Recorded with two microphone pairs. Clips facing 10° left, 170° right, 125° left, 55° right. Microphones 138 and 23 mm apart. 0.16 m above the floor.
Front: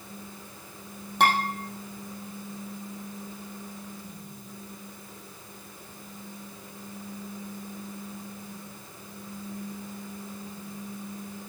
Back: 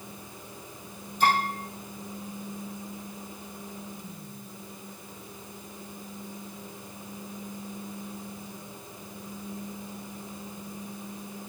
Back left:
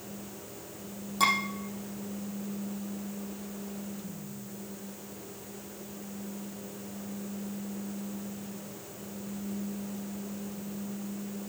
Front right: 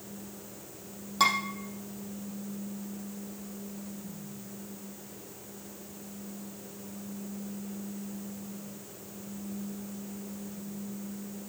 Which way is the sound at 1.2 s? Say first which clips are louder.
Front 1 dB, even; 10° left.